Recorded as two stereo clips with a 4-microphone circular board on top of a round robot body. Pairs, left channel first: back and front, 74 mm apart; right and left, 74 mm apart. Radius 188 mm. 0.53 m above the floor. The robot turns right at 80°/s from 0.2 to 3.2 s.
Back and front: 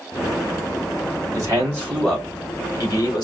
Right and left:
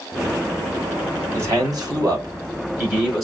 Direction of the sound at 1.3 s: 30° left.